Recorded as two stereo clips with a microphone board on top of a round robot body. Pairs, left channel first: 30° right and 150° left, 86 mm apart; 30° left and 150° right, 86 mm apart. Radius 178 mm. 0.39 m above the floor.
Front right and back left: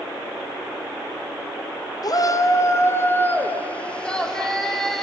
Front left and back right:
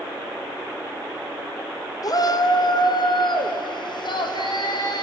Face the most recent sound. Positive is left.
turn(degrees=55)